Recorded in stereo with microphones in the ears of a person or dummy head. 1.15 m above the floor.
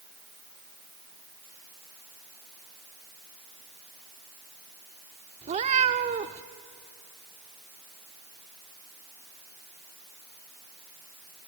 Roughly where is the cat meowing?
Right.